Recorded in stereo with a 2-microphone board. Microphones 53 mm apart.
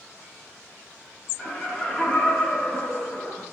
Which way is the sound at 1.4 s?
10° right (ahead or behind).